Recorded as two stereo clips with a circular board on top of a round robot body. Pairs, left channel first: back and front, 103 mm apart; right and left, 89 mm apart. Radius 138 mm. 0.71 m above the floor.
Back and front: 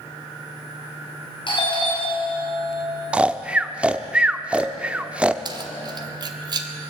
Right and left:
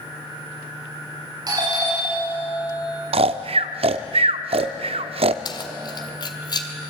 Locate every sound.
1.5 s a doorbell: 140° left, 6.5 m
3.1 s snoring: 80° left, 0.6 m
5.5 s keys jangling: 50° right, 2 m